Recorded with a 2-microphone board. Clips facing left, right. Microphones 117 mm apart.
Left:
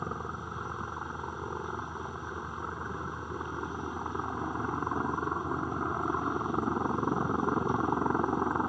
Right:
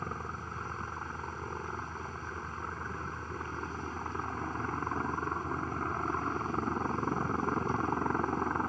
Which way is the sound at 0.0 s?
15° left (ahead or behind).